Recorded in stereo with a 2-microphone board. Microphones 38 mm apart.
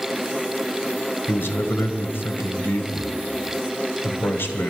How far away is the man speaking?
About 1.9 m.